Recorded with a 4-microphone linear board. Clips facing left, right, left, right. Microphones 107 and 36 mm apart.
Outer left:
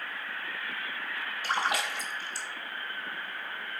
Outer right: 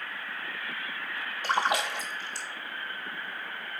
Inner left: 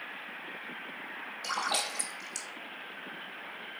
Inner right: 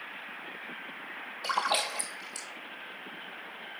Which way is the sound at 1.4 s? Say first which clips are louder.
Outer right 3 dB, inner right 3 dB; 25° right (ahead or behind).